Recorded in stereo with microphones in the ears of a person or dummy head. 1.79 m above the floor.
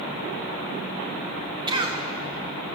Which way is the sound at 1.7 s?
30° right (ahead or behind).